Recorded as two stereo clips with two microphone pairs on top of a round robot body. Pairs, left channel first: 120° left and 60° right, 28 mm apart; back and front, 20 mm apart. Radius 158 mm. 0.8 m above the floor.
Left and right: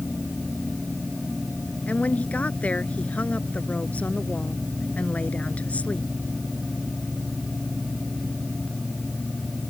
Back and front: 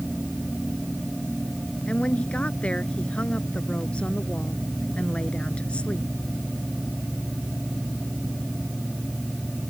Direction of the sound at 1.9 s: 150° left.